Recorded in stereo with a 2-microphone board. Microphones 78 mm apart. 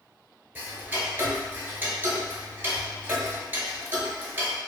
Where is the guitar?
I don't hear a guitar.